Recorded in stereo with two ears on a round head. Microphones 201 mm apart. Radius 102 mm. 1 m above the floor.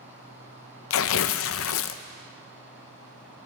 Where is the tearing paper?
60° left (ahead or behind), 0.6 m.